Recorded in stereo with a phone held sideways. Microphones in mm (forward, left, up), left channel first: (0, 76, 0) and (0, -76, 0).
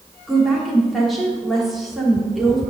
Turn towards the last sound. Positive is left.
turn(degrees=0)  # may be behind; listen again after turning